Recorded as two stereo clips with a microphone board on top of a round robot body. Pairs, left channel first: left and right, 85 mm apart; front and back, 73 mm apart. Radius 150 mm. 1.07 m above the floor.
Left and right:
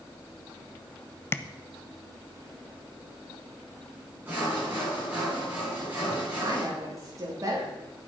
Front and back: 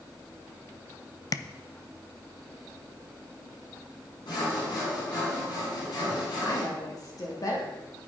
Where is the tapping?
30° left, 0.7 m.